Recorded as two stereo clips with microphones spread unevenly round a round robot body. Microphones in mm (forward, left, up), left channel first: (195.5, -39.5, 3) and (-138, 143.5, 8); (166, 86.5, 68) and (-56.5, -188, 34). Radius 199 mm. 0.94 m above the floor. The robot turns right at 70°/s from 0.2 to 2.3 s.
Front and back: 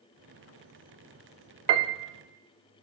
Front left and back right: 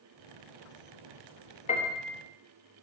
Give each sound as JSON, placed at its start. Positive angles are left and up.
{"t": 1.7, "sound": "a piano", "azimuth_deg": 125, "distance_m": 0.5}